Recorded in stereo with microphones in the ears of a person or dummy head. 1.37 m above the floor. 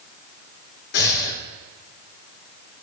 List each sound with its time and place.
0.9 s breathing: 60° left (ahead or behind), 1.5 m